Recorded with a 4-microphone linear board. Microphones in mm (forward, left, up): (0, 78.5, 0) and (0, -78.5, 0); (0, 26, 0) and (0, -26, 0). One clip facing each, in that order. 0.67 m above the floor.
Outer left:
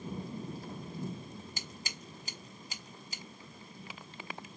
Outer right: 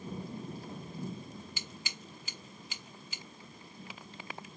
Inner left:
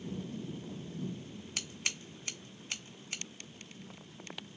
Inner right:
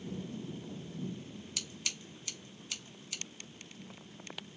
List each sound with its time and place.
1.6 s scissors: 40° left (ahead or behind), 0.7 m